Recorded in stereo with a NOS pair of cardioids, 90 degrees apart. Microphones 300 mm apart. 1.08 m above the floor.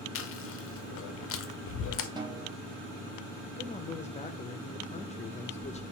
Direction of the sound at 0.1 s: 50° left.